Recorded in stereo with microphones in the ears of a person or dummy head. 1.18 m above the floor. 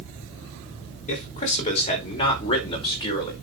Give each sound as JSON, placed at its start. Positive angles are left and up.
{"t": 1.1, "sound": "a man speaking", "side_deg": 35, "distance_m": 4.5}